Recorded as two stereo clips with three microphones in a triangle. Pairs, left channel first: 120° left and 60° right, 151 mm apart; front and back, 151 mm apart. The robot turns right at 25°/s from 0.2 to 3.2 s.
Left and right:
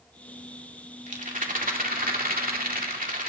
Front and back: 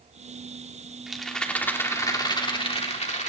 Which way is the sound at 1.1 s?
90° right.